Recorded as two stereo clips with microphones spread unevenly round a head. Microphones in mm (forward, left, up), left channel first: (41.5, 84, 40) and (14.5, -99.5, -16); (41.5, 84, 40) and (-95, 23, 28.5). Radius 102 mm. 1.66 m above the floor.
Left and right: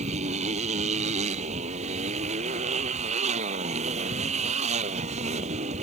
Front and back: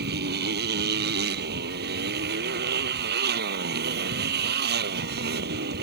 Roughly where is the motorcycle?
Behind.